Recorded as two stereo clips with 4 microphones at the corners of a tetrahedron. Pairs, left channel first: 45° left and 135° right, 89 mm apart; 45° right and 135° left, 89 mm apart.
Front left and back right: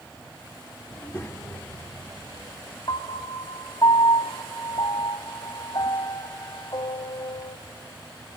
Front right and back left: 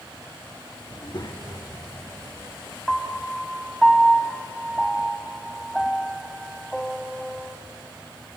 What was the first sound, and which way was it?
A child speaking, 25° right.